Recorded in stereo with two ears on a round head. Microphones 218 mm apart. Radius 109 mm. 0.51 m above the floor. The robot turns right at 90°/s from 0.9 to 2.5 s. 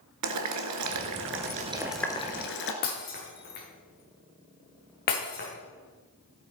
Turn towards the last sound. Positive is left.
turn(degrees=40)  # may be behind; listen again after turning